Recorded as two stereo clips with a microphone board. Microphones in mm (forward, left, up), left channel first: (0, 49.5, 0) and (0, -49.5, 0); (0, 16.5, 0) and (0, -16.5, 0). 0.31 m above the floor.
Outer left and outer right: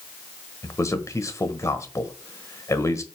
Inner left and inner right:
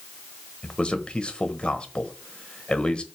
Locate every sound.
0.6 s a man speaking: 30° left (ahead or behind), 1.2 m